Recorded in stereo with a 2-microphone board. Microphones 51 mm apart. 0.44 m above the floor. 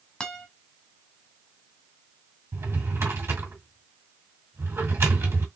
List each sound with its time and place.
0.2 s a guitar: 20° left (ahead or behind), 1.2 m
2.5 s a drawer: 60° right (ahead or behind), 1.8 m